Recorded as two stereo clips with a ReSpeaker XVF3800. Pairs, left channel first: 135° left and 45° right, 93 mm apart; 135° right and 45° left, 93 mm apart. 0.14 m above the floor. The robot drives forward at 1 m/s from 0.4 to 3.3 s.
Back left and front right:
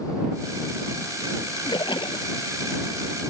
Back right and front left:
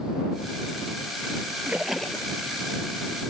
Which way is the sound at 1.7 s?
110° left.